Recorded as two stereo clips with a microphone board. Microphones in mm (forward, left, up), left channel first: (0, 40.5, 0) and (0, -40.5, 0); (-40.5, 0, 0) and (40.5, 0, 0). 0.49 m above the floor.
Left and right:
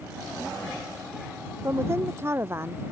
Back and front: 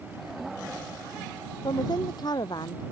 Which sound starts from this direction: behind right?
A woman speaking, at 1.6 s.